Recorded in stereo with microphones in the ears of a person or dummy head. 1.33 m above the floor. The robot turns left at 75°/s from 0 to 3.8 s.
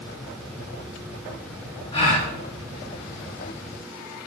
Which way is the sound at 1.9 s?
25° left (ahead or behind).